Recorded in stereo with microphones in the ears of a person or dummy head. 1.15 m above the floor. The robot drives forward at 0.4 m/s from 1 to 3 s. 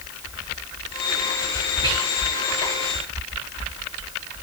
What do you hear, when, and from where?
1.8 s whispering: 15° right (ahead or behind), 0.7 m